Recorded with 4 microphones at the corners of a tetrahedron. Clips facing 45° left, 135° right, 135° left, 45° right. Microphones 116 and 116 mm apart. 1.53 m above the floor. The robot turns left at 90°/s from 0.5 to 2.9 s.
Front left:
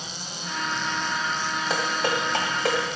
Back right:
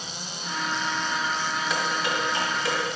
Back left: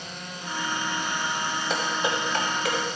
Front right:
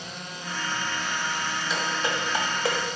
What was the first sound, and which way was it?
Dishes clattering, 95° left.